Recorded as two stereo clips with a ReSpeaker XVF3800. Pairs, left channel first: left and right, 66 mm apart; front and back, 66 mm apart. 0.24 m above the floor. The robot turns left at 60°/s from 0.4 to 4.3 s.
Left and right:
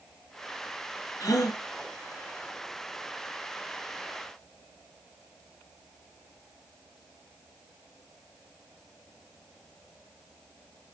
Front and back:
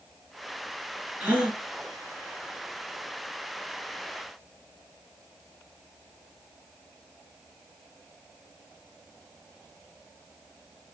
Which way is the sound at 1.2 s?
120° left.